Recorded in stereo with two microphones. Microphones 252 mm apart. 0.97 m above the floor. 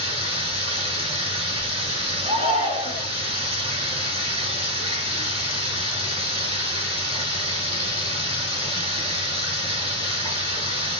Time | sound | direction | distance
0.0 | running water | 25° right (ahead or behind) | 1.9 m
2.2 | a shout | 25° right (ahead or behind) | 1.4 m